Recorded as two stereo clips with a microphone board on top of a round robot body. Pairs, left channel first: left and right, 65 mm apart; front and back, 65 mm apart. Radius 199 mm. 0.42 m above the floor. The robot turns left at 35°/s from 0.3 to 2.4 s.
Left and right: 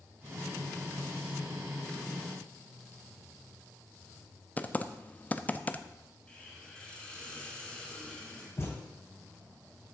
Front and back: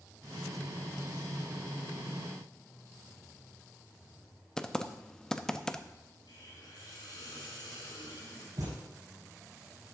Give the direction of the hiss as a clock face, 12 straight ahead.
12 o'clock.